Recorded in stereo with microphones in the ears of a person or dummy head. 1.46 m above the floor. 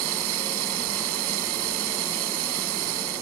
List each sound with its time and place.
0.0 s running water: 85° right